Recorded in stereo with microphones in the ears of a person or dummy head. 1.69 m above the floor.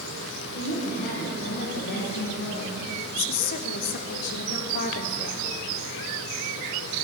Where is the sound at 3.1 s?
45° left (ahead or behind), 0.7 m.